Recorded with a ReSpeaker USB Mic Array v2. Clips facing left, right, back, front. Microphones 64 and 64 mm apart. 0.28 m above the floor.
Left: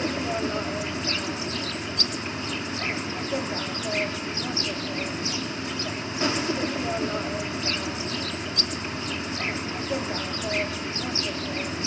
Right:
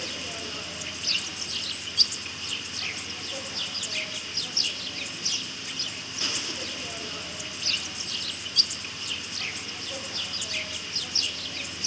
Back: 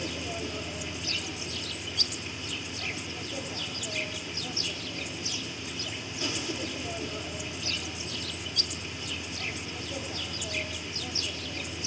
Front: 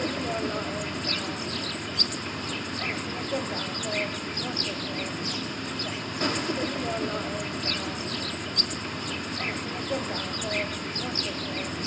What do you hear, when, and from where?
0.0 s an insect: 40° left, 0.8 m